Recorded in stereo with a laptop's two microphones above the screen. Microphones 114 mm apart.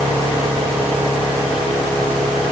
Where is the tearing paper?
No tearing paper in this recording.